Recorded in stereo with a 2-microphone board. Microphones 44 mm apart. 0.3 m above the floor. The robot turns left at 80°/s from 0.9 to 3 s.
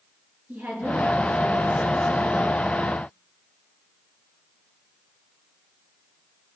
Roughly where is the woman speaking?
Ahead right.